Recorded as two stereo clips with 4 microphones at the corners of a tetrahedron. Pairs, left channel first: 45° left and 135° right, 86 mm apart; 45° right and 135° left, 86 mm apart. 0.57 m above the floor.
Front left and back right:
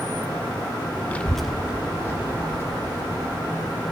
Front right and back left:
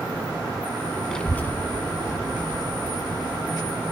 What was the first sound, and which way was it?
A child speaking, 20° left.